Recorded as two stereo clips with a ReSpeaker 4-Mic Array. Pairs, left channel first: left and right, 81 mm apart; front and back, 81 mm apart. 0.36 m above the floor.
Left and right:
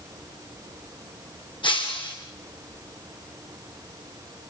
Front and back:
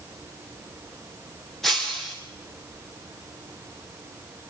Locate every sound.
1.6 s breaking glass: 85° left, 7.5 m